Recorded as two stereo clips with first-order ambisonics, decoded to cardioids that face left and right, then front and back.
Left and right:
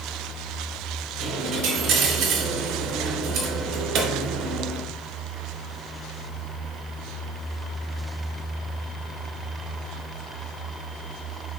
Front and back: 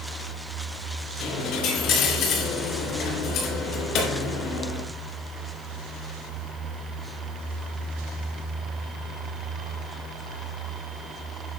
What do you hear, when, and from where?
1.2 s a dropped coin: 40° right, 2.5 m